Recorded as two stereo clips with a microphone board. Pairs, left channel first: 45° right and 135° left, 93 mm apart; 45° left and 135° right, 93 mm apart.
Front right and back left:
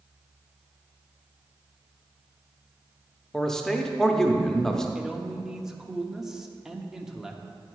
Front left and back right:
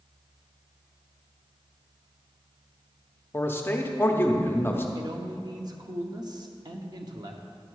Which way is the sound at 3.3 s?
35° left.